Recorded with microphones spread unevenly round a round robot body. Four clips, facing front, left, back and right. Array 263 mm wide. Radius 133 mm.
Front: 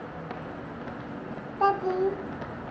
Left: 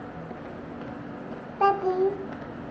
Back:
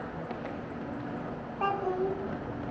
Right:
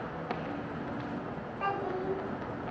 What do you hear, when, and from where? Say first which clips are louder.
1.6 s a child speaking: left 12 dB, front 6 dB; 65° left, 1.1 m